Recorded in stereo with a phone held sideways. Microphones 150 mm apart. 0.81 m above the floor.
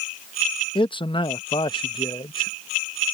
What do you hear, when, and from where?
0.8 s a man speaking: 35° left (ahead or behind)